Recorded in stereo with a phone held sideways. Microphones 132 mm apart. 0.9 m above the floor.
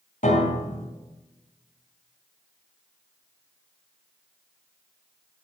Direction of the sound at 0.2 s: 80° left.